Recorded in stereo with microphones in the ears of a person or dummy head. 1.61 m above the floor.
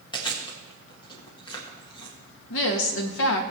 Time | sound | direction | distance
0.1 | chewing | 20° left (ahead or behind) | 1.6 m
2.5 | a woman speaking | 75° left (ahead or behind) | 1.7 m